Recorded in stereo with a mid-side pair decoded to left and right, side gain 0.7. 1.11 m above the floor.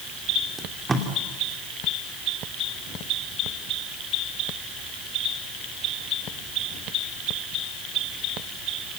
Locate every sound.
0.6 s tape being pulled: 15° right, 3 m